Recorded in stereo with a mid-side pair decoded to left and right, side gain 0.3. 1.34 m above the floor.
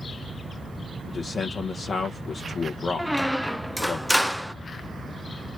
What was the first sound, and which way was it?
A man speaking, 60° left.